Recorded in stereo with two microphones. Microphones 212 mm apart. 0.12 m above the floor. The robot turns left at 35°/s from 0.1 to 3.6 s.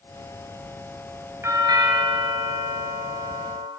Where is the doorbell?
20° right, 2.5 m; by 3.7 s 95° right, 2.5 m.